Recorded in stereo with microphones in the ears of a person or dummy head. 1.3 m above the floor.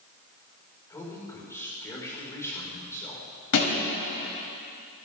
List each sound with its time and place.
0.9 s a man speaking: 15° left (ahead or behind), 5 m
3.5 s a thud: 80° left, 3.5 m